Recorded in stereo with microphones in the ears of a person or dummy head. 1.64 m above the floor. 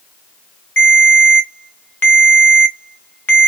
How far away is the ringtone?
About 0.7 m.